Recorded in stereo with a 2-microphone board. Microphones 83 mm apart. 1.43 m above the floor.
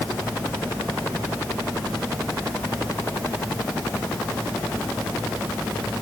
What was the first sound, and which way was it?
Only background noise.